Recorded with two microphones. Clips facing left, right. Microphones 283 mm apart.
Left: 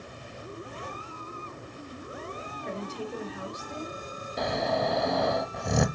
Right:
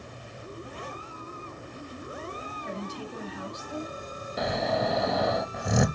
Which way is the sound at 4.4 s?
Centre (ahead or behind).